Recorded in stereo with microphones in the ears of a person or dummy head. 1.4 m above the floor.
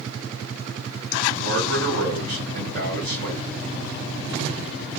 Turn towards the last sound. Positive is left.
turn(degrees=-55)  # may be behind; listen again after turning